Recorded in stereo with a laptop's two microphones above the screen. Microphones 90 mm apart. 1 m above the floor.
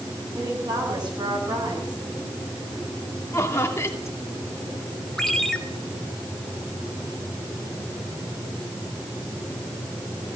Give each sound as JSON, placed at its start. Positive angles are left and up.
{"t": 0.3, "sound": "a woman speaking", "side_deg": -50, "distance_m": 7.0}
{"t": 3.3, "sound": "laughter", "side_deg": 30, "distance_m": 2.5}
{"t": 5.2, "sound": "a ringtone", "side_deg": 5, "distance_m": 1.6}